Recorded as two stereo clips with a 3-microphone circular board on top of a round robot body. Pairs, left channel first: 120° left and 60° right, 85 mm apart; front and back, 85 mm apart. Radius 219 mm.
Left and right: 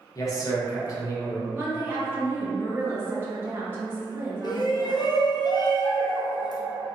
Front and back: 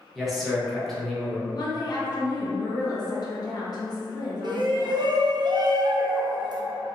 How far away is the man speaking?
About 1.0 m.